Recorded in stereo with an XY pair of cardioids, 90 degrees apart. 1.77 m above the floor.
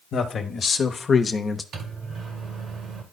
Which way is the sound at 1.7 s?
70° right.